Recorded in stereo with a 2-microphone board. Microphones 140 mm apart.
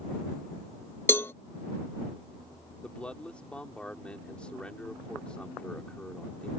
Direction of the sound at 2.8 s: 10° left (ahead or behind).